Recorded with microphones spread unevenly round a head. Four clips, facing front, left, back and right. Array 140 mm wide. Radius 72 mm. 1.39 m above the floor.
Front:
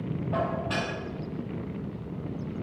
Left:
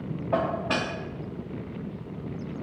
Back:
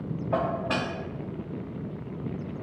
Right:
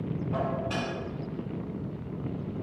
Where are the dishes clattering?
115° left, 1.8 m.